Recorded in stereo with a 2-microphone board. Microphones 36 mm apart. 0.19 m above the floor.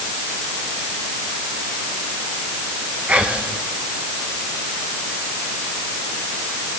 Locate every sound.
3.1 s whispering: 35° right (ahead or behind), 1.7 m